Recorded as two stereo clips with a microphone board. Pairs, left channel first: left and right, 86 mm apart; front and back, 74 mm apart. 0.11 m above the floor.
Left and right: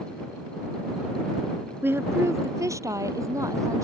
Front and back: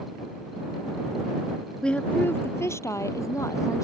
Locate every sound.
1.8 s a woman speaking: 65° right; by 3.8 s 45° right